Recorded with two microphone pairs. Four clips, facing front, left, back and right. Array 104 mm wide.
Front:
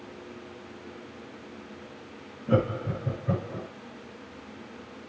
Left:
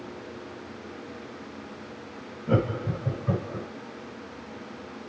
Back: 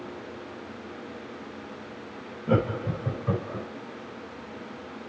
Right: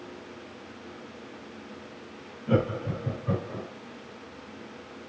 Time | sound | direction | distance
2.5 | laughter | 175° left | 3.5 m